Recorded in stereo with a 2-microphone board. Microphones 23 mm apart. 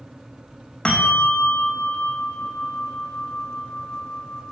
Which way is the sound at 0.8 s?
45° left (ahead or behind).